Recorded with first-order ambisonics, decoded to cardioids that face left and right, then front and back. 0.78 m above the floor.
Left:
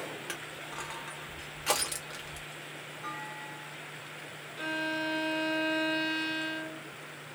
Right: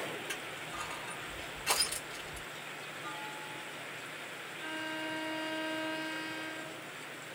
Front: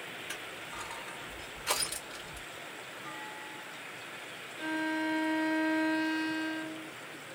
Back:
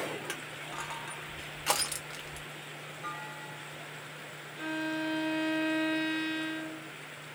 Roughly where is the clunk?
Behind left.